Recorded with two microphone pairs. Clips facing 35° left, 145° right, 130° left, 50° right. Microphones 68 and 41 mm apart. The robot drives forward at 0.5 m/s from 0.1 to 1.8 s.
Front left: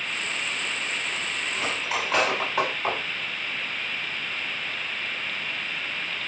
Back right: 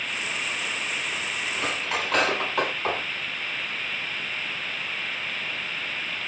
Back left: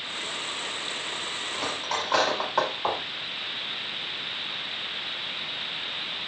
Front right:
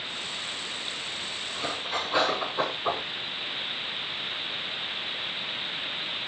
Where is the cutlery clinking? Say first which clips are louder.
Even, back left 1 dB; 120° left, 4.5 m.